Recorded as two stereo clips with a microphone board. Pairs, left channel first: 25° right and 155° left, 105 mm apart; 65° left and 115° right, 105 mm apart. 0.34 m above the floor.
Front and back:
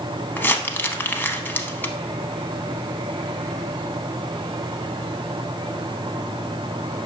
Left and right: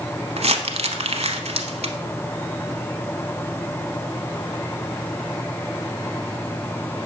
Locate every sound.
0.4 s crumpling: 95° right, 0.6 m